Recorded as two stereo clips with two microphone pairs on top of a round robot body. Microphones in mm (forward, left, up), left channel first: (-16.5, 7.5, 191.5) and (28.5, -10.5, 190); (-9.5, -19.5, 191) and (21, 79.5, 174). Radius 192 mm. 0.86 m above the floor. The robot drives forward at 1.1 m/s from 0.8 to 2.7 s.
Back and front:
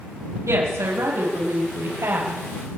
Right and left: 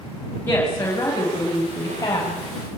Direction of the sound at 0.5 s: 35° right.